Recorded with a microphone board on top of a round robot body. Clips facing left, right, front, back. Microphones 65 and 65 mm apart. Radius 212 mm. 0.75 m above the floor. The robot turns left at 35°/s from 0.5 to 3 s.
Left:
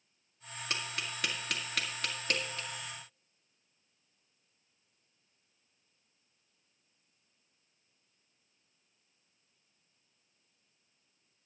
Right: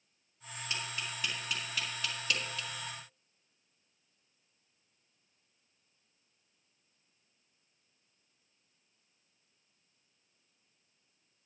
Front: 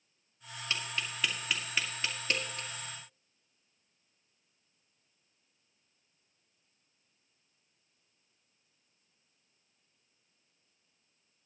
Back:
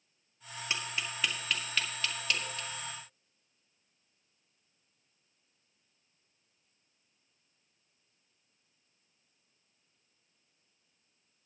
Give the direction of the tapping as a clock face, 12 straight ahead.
8 o'clock.